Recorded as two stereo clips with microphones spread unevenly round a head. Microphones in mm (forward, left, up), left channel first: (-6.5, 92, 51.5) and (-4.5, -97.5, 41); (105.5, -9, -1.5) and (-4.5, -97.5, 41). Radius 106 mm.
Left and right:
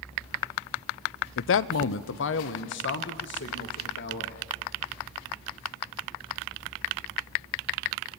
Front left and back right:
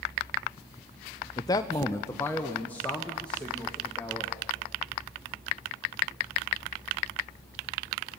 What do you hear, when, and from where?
1.4 s a man speaking: 90° left, 0.6 m; by 4.4 s 125° left, 2.5 m